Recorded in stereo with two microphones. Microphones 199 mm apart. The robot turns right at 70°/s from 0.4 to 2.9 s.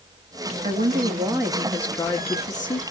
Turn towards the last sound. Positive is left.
turn(degrees=85)